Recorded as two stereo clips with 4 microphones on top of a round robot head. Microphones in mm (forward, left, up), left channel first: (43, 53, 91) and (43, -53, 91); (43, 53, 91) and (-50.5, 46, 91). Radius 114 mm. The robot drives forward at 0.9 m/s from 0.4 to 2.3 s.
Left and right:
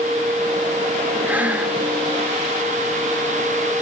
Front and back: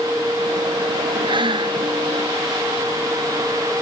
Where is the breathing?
165° right, 1.8 m.